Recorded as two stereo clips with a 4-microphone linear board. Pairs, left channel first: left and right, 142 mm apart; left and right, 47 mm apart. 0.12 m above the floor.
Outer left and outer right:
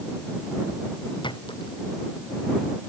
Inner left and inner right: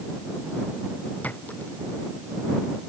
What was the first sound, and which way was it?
A clink, 35° left (ahead or behind).